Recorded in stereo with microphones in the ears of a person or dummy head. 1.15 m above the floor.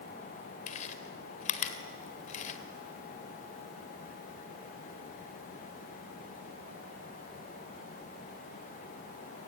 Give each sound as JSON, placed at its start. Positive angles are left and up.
{"t": 0.7, "sound": "chewing", "side_deg": 35, "distance_m": 2.0}